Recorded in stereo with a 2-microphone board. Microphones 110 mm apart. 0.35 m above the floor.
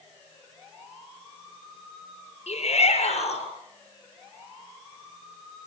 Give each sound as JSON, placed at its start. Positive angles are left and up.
{"t": 2.5, "sound": "a shout", "side_deg": 75, "distance_m": 7.5}